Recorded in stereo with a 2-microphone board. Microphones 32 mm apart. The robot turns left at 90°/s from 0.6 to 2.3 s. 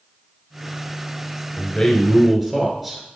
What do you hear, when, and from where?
1.6 s a man speaking: 60° left, 1.2 m; by 3.0 s 5° right, 1.2 m